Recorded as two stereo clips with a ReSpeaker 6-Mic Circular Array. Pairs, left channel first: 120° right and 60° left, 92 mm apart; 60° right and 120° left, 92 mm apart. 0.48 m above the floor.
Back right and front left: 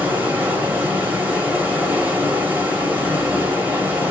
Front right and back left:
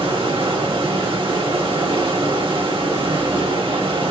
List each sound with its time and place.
0.0 s running water: 130° left, 1.0 m